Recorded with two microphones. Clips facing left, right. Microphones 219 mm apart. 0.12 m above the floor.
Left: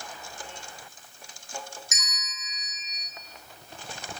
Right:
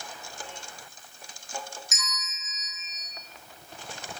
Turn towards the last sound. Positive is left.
turn(degrees=20)  # may be behind; listen again after turning